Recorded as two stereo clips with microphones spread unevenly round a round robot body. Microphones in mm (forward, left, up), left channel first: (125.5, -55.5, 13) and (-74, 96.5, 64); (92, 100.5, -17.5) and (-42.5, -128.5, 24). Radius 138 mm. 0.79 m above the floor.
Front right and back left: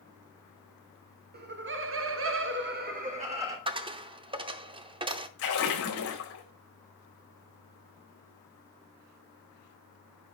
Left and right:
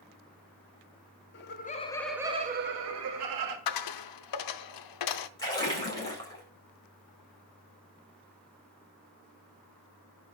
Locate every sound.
1.3 s laughter: 90° left, 1.6 m; by 3.6 s 140° right, 2 m
3.7 s a dropped coin: 75° left, 0.7 m
5.4 s a splash: 15° right, 4.5 m